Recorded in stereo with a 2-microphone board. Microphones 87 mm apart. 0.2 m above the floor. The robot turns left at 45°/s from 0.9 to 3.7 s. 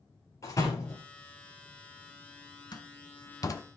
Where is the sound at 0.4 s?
35° left (ahead or behind), 3 m; by 1.0 s 40° left (ahead or behind), 3 m.